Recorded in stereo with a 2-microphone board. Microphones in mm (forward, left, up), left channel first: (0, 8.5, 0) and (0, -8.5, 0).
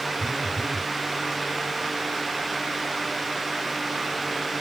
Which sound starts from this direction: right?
A phone buzzing, at 0.2 s.